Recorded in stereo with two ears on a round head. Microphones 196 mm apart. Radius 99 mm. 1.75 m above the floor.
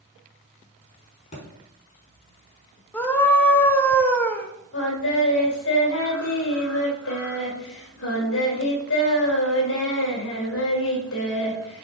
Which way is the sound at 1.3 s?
30° left (ahead or behind).